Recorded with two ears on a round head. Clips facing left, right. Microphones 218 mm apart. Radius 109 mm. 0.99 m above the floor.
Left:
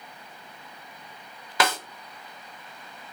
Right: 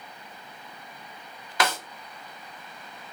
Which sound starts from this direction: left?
A snare drum, at 1.6 s.